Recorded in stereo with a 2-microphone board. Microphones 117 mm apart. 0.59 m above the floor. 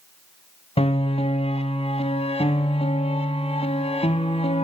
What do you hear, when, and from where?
0.8 s a piano: 65° left (ahead or behind), 1.3 m